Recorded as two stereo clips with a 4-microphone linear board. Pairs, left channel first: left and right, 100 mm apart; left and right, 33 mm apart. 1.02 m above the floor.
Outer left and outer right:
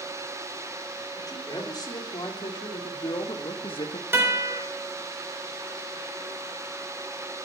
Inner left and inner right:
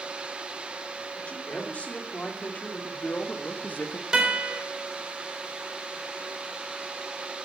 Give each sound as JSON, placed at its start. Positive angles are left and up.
{"t": 1.2, "sound": "a man speaking", "side_deg": 40, "distance_m": 3.0}
{"t": 4.1, "sound": "a guitar", "side_deg": -25, "distance_m": 4.0}